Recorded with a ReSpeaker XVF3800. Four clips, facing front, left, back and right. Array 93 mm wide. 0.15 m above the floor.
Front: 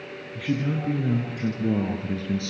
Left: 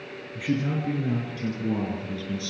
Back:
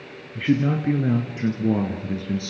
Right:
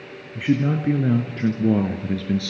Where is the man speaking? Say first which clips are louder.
Right 6 dB, back 5 dB; 145° right, 1.7 m; by 2.5 s 90° right, 2.0 m.